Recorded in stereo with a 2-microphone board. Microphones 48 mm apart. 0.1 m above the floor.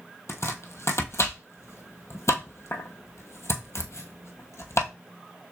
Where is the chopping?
70° left (ahead or behind), 0.9 m.